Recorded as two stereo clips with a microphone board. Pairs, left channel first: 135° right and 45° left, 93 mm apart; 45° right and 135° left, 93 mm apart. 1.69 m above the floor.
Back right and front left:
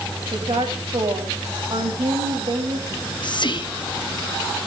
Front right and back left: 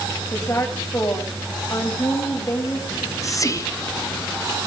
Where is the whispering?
100° right, 1.2 m.